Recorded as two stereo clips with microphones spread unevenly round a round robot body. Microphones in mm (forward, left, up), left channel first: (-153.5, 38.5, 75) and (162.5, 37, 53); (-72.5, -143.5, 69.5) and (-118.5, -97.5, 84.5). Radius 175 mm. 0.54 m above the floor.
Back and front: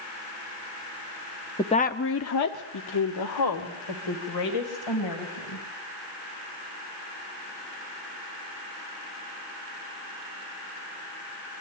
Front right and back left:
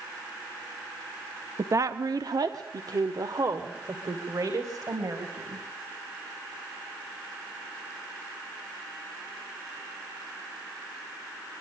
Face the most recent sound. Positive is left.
turn(degrees=180)